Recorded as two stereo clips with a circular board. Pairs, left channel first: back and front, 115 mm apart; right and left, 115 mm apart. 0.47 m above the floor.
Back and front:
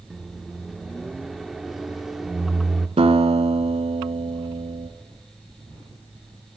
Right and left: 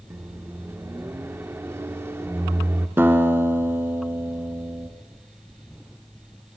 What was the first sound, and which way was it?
A microwave, 80° left.